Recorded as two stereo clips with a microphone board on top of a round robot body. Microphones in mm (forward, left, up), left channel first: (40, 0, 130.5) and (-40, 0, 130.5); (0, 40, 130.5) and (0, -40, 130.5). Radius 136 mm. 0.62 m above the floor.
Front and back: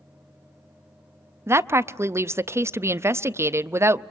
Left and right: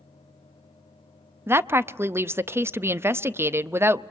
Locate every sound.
1.5 s a woman speaking: 140° right, 0.6 m